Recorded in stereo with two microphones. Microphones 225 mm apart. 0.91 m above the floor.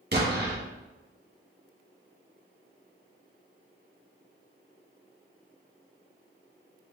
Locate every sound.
0.1 s an explosion: 45° right (ahead or behind), 1.2 m